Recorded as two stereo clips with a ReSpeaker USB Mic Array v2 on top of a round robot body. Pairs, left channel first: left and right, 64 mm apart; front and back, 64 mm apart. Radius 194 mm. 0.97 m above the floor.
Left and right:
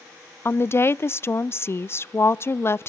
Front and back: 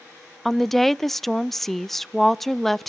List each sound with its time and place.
0.5 s a woman speaking: 85° left, 0.5 m